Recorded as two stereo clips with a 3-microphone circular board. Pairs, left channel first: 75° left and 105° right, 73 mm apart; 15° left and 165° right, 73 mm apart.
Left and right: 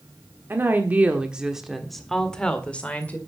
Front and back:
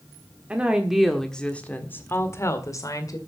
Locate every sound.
0.5 s a woman speaking: 110° right, 1.4 m; by 3.2 s 10° left, 2 m